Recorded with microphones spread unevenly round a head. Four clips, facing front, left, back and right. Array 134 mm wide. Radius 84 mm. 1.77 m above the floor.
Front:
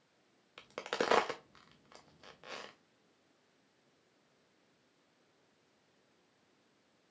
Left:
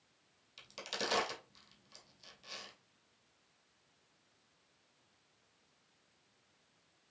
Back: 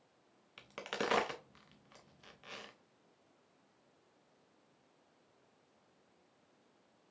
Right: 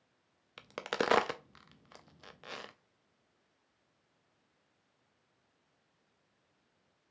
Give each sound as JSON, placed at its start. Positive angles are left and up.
{"t": 0.6, "sound": "a crack", "azimuth_deg": -55, "distance_m": 0.6}